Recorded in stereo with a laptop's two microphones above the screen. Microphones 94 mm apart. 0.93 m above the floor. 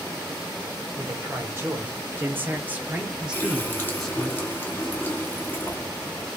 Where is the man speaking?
30° right (ahead or behind), 1.6 m; by 4.3 s 5° left (ahead or behind), 0.9 m.